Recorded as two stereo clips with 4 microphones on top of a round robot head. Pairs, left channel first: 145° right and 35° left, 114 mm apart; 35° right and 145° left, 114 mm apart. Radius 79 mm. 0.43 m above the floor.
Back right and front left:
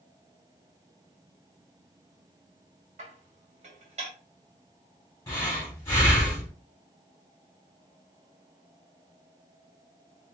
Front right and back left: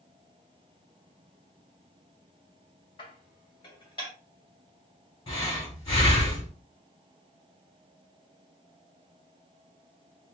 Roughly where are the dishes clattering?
Ahead.